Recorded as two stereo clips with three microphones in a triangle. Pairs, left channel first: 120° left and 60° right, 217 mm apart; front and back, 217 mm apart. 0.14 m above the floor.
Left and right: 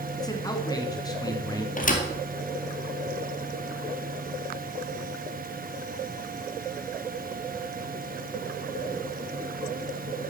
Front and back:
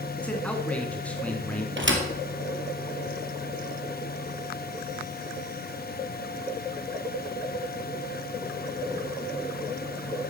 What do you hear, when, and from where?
0.2 s a man speaking: 75° left, 1.8 m
1.8 s a thud: 165° left, 2.0 m